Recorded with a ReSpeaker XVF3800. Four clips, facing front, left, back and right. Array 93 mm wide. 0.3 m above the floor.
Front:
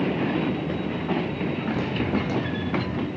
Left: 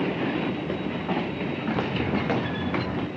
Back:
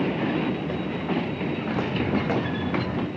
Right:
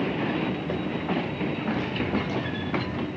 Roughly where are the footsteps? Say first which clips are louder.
Left 4 dB, back 1 dB; behind left.